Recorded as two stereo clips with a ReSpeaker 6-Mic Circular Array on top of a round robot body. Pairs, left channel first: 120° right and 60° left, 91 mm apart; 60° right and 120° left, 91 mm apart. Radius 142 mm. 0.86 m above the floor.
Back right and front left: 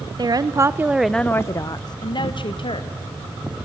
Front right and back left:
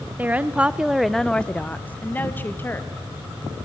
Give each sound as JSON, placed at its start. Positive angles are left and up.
{"t": 0.2, "sound": "a woman speaking", "azimuth_deg": 55, "distance_m": 1.2}